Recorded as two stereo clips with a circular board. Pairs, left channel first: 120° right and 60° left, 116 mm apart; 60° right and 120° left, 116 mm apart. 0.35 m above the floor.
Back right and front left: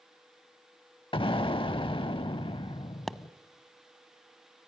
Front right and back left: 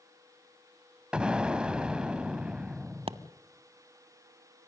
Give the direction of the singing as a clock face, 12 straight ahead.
I don't hear singing.